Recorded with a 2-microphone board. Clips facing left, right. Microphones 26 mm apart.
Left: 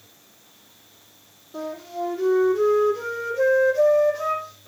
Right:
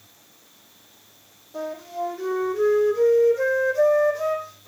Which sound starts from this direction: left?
A flute, at 1.5 s.